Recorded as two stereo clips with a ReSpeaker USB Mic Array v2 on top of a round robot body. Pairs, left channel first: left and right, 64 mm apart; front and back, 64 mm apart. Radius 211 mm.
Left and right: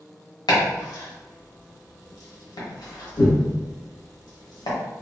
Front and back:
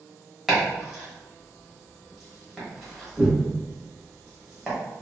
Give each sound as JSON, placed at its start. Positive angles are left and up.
{"t": 0.5, "sound": "chopping", "azimuth_deg": 90, "distance_m": 1.2}